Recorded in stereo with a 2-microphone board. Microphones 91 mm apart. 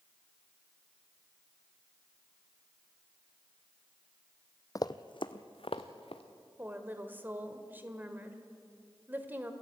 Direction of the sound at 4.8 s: 40° left (ahead or behind).